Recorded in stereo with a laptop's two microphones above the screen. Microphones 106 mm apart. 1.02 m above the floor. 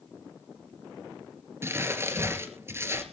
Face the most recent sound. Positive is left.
turn(degrees=-25)  # may be behind; listen again after turning